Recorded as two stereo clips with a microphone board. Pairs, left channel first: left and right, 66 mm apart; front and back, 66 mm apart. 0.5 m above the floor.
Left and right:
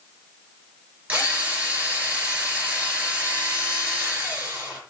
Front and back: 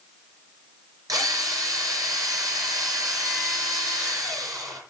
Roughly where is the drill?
Behind right.